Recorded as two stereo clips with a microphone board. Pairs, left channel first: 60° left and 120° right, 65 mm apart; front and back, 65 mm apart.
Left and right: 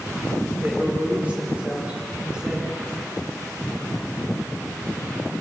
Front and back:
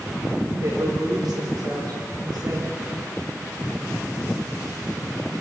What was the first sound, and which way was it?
A woman speaking, 175° left.